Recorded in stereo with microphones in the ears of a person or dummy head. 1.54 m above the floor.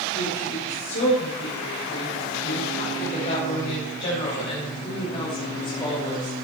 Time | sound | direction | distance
0.1 | a woman speaking | 90° left | 8.5 m